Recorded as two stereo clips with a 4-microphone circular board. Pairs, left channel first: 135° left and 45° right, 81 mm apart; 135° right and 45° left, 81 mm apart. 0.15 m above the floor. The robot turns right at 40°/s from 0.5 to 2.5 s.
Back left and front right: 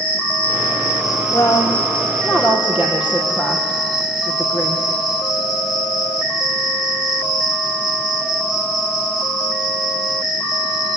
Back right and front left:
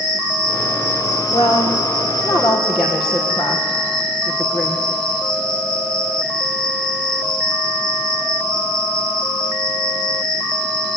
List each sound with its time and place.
0.0 s an insect: 150° left, 9 m; by 11.0 s 130° right, 9 m
1.3 s a woman speaking: 175° right, 5 m; by 4.9 s 125° right, 5 m